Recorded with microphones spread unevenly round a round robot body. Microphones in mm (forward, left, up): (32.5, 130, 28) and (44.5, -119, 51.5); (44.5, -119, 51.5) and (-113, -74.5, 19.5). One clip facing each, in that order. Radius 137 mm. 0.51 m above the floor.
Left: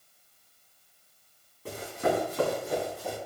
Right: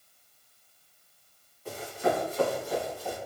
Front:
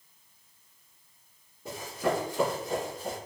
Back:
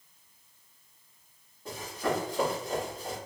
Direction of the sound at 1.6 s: 60° left.